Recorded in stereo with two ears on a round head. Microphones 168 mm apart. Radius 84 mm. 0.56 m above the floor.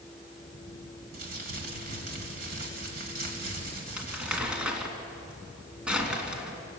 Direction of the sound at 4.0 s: 5° right (ahead or behind).